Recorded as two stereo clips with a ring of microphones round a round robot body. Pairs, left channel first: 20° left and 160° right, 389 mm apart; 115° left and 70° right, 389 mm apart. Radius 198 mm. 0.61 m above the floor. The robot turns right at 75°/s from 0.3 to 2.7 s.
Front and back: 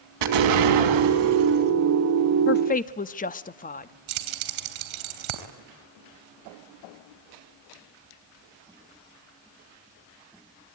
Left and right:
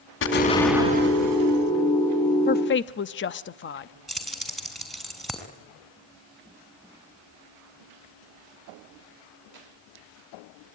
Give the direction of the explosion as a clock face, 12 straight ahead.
6 o'clock.